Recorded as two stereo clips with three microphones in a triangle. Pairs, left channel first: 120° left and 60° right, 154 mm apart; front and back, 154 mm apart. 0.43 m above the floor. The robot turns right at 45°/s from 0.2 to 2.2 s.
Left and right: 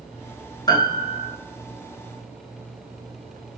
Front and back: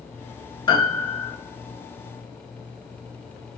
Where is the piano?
55° left, 0.9 m; by 1.3 s 85° left, 0.9 m.